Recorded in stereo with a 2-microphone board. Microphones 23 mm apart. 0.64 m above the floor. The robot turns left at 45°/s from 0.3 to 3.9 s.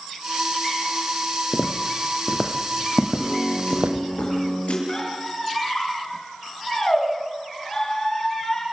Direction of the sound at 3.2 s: 140° left.